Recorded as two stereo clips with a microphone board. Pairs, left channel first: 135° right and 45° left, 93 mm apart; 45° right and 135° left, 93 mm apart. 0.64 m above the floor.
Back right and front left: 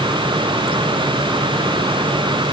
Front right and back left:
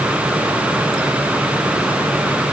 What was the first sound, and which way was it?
Only background noise.